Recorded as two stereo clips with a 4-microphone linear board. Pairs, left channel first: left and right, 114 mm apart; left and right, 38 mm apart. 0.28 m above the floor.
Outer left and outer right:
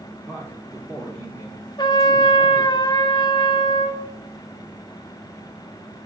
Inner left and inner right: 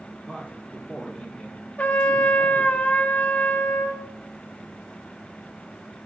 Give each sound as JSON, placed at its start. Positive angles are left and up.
{"t": 0.2, "sound": "a man speaking", "side_deg": -15, "distance_m": 5.5}
{"t": 1.8, "sound": "a trumpet", "side_deg": 40, "distance_m": 1.7}